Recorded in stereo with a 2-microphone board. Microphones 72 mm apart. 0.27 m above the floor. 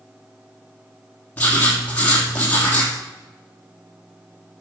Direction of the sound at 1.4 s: 20° left (ahead or behind).